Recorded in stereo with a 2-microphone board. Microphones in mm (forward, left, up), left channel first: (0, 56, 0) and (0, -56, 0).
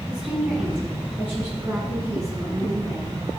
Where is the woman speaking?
10° right (ahead or behind), 5.5 m; by 3.3 s 30° right (ahead or behind), 7 m.